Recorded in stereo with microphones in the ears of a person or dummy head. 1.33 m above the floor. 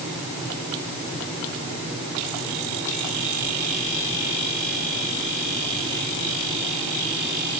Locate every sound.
Only background noise.